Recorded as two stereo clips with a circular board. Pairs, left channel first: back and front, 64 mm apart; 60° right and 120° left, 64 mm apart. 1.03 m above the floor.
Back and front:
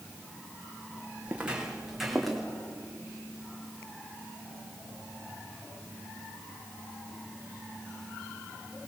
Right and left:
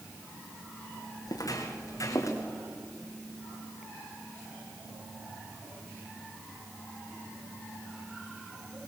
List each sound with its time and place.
1.3 s footsteps: 70° right, 3.5 m; by 2.4 s 95° right, 3.5 m